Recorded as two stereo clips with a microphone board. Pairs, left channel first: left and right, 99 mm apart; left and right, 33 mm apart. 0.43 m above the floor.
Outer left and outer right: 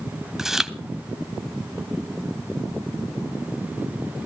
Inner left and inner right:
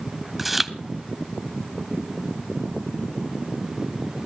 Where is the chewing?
5° right (ahead or behind), 0.8 m.